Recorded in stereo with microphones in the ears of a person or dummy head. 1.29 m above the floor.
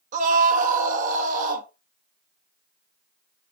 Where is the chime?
No chime in this recording.